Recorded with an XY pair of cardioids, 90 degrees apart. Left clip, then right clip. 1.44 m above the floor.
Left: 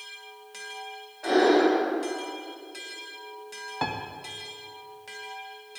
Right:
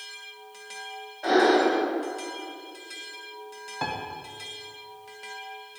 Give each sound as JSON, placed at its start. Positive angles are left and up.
{"t": 1.2, "sound": "breathing", "azimuth_deg": -30, "distance_m": 1.7}
{"t": 3.8, "sound": "a piano", "azimuth_deg": 25, "distance_m": 0.6}